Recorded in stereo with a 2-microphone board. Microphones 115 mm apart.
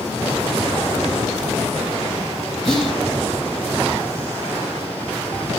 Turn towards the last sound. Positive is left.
turn(degrees=5)  # may be behind; listen again after turning